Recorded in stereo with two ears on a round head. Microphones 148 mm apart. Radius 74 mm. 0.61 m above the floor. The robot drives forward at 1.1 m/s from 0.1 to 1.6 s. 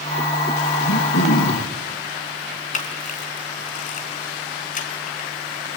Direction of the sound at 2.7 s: 50° left (ahead or behind).